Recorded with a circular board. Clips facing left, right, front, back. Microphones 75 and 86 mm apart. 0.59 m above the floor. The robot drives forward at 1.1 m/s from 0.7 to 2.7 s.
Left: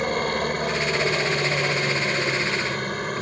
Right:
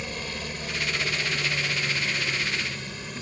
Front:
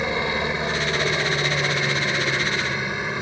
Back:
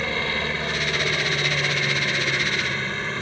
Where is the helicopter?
70° left; by 3.2 s 75° left.